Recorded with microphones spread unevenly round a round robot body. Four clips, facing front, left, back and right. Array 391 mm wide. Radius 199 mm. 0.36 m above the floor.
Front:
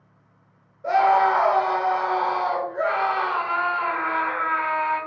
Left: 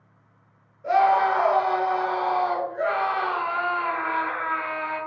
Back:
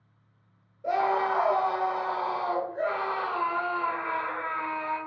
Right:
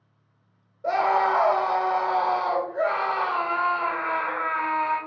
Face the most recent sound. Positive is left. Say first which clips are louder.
# left 3 dB, front 8 dB
turn(degrees=-120)